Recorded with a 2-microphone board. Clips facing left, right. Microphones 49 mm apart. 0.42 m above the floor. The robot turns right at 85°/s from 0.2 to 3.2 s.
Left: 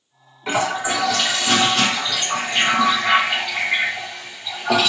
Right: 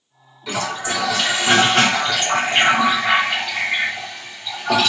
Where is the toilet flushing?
130° left, 0.7 m; by 4.9 s 5° left, 0.7 m.